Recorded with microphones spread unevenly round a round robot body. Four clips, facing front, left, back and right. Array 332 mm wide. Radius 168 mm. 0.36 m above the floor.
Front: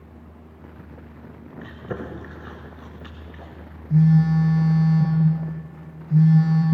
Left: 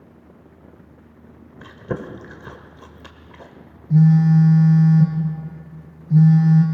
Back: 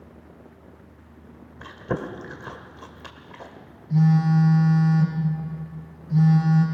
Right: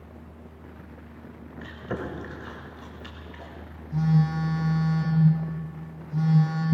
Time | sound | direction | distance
1.6 | chewing | 110° left | 1.8 m
3.9 | a phone buzzing | 75° left | 3 m